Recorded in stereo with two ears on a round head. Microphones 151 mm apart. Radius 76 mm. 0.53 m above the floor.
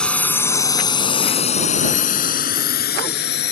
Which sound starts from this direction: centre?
A drone, at 0.0 s.